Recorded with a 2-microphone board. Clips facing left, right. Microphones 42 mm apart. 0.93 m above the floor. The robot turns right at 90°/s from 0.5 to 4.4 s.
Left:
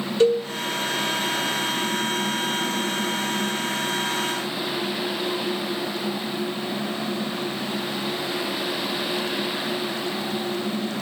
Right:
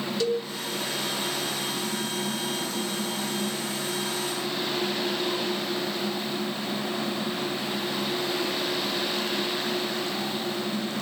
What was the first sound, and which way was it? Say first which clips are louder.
A cowbell: left 9 dB; 40° left (ahead or behind).